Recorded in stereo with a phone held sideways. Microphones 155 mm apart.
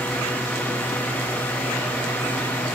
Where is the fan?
10° left (ahead or behind), 2.5 m.